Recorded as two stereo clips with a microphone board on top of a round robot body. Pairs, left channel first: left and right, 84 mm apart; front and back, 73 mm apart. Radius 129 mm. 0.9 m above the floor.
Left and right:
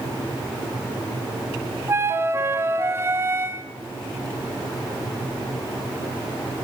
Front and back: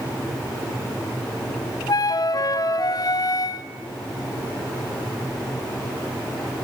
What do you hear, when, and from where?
1.9 s a flute: 30° right, 1.6 m